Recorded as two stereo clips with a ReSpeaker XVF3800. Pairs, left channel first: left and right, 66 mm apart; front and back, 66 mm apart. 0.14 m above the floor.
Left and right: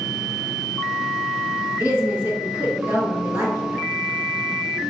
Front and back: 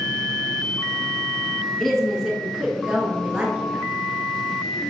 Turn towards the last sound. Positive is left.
turn(degrees=-120)